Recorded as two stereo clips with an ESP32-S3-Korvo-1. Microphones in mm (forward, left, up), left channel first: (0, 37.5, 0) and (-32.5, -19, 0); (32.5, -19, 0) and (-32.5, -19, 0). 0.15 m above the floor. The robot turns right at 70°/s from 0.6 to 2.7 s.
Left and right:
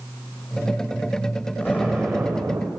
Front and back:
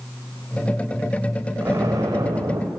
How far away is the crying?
No crying in this recording.